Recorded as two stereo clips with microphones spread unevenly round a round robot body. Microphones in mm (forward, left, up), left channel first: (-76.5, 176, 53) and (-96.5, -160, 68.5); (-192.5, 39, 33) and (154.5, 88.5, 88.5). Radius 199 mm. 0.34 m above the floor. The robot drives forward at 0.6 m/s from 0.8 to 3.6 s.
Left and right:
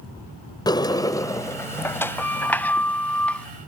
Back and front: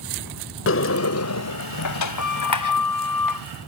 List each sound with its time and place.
0.7 s a sliding door: 160° left; by 3.5 s 170° left